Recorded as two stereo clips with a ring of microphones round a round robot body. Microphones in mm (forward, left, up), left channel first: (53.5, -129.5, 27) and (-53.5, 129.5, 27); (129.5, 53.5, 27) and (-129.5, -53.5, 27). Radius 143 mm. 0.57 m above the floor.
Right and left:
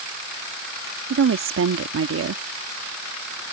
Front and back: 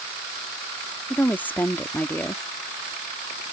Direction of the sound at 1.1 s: 105° left.